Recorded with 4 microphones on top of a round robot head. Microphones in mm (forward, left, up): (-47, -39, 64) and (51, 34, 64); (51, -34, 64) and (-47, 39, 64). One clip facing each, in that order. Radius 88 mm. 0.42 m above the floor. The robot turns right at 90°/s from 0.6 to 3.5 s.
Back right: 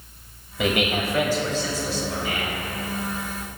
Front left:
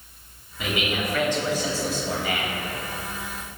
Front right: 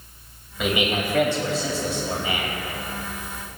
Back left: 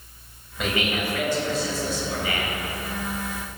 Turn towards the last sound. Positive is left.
turn(degrees=135)